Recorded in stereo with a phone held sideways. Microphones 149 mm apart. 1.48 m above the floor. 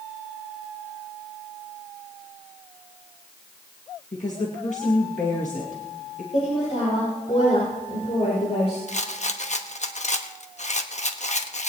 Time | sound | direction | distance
4.1 | a woman speaking | 55° left (ahead or behind) | 2.0 m
6.3 | a woman speaking | 45° left (ahead or behind) | 6 m
8.9 | a rattle | 50° left (ahead or behind) | 1.1 m